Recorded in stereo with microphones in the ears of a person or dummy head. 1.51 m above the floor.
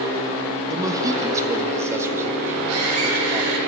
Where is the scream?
85° right, 7 m.